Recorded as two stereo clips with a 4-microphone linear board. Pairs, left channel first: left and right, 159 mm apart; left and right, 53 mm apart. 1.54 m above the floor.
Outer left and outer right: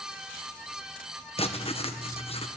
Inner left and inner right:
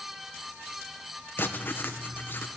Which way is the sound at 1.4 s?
40° left (ahead or behind).